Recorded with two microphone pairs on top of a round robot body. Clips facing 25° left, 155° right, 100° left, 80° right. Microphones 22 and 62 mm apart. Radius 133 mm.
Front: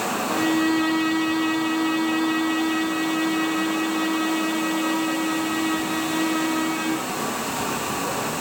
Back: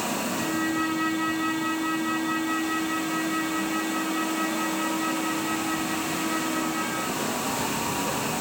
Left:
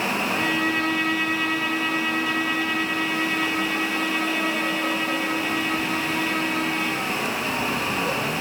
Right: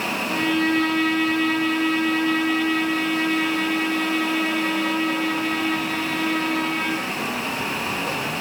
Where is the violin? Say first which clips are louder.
Front 9 dB, right 5 dB; 20° left, 5 m.